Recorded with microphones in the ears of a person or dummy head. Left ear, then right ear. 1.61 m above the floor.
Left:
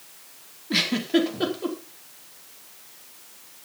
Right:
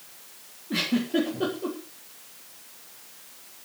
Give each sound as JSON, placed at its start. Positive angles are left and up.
{"t": 0.7, "sound": "a giggle", "side_deg": 45, "distance_m": 4.5}